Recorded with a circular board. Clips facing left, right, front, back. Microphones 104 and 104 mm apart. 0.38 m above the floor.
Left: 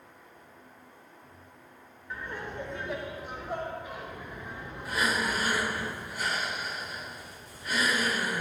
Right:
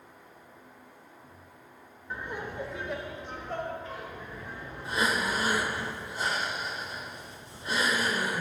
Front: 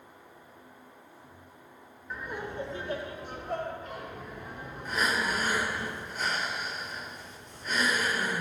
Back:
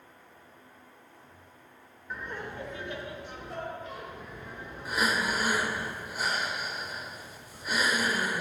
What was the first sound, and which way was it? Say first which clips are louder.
Laughter: right 1 dB, front 1 dB; 95° right.